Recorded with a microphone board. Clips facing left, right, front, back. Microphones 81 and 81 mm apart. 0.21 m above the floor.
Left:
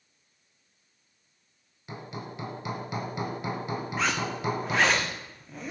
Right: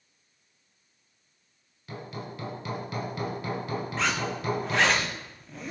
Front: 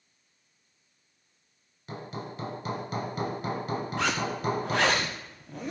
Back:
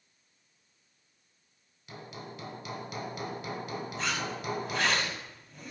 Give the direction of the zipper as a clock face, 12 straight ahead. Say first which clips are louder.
Left 1 dB, front 5 dB; 12 o'clock.